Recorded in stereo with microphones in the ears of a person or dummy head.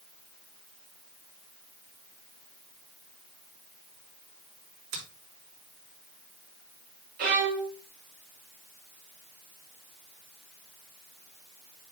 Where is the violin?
45° right (ahead or behind), 1.5 m.